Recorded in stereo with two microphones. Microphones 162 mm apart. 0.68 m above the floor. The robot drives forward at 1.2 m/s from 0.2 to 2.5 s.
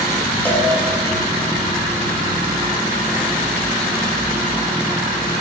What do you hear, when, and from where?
0.5 s a cowbell: 10° left (ahead or behind), 1.6 m